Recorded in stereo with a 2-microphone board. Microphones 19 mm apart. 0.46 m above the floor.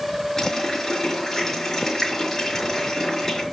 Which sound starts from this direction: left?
A running tap, at 0.4 s.